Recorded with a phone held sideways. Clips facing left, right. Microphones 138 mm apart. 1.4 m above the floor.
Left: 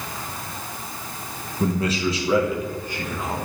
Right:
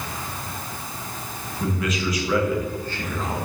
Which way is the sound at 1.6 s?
35° left (ahead or behind).